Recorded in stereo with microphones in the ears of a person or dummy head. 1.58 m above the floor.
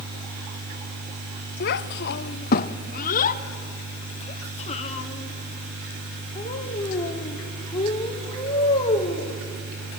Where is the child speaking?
50° left (ahead or behind), 0.8 m; by 9.3 s 35° left (ahead or behind), 4.5 m.